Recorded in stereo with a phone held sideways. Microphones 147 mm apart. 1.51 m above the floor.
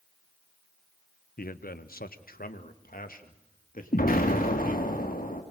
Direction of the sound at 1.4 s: 80° left.